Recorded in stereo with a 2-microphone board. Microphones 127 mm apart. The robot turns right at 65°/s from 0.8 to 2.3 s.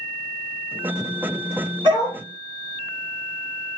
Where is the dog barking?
40° right (ahead or behind), 3 m; by 2.2 s 15° right (ahead or behind), 3 m.